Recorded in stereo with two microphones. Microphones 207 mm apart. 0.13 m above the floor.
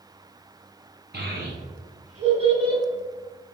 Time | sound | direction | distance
1.1 | a child speaking | 50° right (ahead or behind) | 1.7 m